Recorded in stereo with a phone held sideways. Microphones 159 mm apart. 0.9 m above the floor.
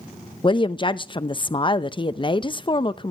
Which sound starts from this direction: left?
A woman speaking, at 0.4 s.